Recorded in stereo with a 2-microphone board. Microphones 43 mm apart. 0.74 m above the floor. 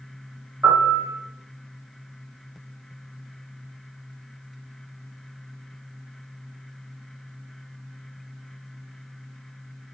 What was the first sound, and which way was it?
A piano, 50° right (ahead or behind).